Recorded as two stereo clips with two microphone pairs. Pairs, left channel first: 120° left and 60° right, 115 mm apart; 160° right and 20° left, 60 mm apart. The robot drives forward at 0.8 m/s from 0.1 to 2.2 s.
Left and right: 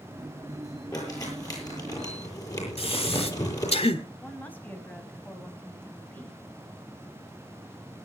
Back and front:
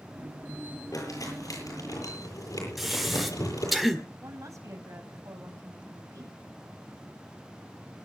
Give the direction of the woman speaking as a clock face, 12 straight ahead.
11 o'clock.